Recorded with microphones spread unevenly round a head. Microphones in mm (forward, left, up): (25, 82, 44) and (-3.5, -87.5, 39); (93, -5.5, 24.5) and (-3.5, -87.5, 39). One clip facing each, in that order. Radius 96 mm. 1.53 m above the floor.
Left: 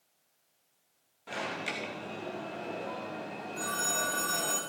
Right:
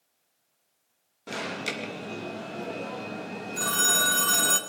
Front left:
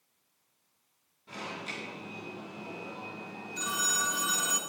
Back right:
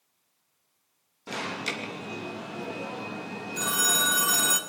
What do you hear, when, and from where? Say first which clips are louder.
1.3 s an alarm: right 4 dB, back right 7 dB; 145° right, 3 m
3.6 s a phone ringing: right 4 dB, back right 5 dB; 120° right, 1.9 m